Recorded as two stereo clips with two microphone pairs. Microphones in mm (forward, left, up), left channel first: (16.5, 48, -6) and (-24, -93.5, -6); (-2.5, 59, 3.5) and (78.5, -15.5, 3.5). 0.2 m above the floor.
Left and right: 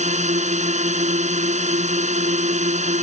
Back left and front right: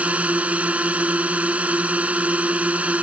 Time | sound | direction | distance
0.0 | a drone | 120° right | ?